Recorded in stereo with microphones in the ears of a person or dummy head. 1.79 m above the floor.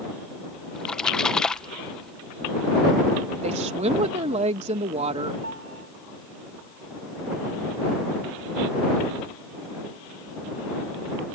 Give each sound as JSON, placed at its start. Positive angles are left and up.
{"t": 0.8, "sound": "a splash", "side_deg": 5}
{"t": 3.4, "sound": "a woman speaking", "side_deg": -30}
{"t": 5.4, "sound": "a piano", "side_deg": -85}